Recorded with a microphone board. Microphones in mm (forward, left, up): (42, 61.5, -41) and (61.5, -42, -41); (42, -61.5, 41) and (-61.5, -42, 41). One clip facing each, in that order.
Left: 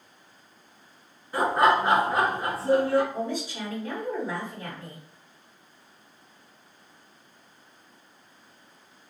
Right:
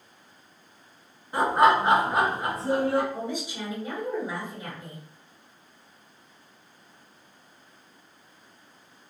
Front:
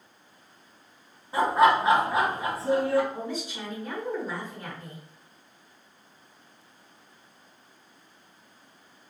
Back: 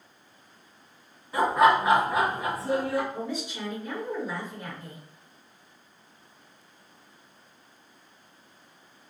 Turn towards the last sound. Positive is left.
turn(degrees=-20)